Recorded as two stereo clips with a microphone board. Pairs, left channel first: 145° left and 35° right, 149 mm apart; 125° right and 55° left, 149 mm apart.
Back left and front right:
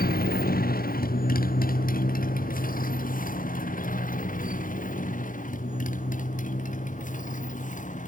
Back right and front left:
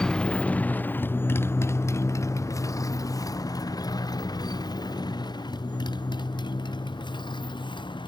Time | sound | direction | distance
0.0 | a motorcycle | 150° left | ?